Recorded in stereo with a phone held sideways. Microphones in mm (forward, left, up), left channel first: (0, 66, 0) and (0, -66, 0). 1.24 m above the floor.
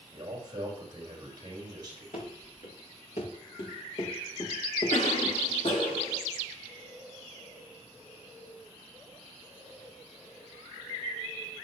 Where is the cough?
75° left (ahead or behind), 3.5 m.